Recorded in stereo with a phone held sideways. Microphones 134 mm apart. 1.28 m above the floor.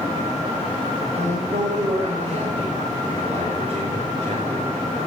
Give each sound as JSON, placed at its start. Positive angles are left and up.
{"t": 1.1, "sound": "a man speaking", "side_deg": -60, "distance_m": 5.5}